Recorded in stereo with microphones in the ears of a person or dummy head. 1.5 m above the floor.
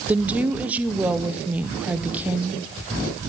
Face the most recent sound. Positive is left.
turn(degrees=-10)  # may be behind; listen again after turning